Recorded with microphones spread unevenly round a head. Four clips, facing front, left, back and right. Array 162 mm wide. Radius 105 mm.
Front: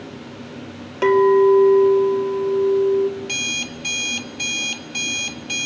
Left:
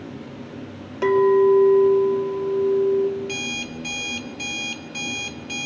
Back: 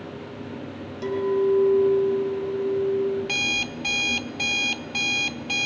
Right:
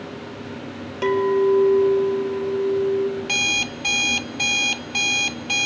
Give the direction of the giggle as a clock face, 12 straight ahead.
I don't hear a giggle.